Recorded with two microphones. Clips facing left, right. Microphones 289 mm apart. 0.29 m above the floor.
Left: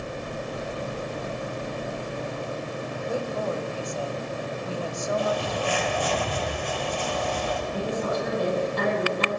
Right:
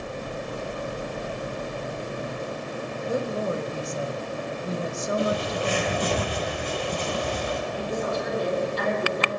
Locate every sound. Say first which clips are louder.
3.1 s a woman speaking: right 2 dB; 20° right (ahead or behind), 1.0 m
5.2 s a bird: right 3 dB; 45° right (ahead or behind), 4.5 m
7.7 s a woman speaking: left 2 dB; 60° left (ahead or behind), 8.5 m